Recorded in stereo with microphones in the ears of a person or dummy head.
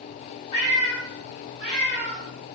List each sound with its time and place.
0.5 s a cat meowing: 25° left (ahead or behind), 1.3 m; by 2.2 s 10° right (ahead or behind), 1.4 m